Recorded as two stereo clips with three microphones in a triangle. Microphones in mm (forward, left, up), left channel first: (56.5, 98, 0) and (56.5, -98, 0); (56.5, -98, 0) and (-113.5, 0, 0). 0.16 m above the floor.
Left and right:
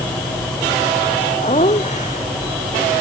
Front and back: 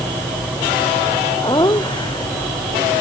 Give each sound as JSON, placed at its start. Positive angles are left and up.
{"t": 1.4, "sound": "laughter", "azimuth_deg": 35}